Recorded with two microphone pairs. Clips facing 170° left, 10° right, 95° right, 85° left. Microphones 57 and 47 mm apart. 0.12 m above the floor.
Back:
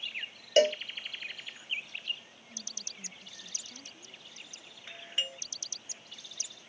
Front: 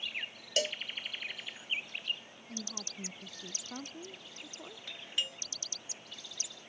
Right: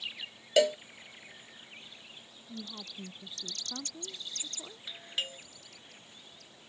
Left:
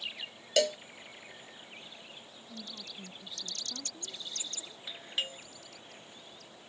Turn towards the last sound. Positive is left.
turn(degrees=170)